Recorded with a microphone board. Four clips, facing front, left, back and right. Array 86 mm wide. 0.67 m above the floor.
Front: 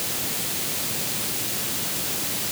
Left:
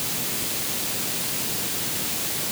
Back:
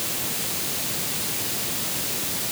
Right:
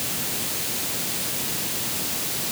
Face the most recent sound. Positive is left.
No sound to turn to.